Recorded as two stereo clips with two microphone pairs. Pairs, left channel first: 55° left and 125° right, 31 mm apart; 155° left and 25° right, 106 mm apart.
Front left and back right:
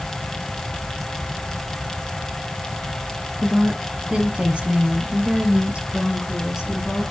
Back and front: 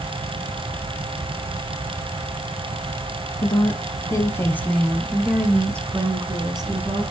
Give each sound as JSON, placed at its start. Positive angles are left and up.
{"t": 3.4, "sound": "a woman speaking", "azimuth_deg": 180, "distance_m": 1.7}